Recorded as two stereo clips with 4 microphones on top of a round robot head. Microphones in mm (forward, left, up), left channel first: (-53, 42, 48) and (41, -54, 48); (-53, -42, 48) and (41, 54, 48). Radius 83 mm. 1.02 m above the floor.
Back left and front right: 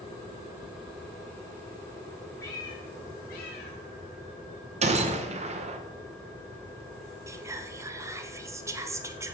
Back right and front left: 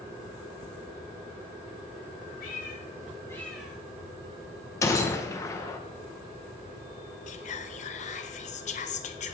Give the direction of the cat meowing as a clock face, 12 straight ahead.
5 o'clock.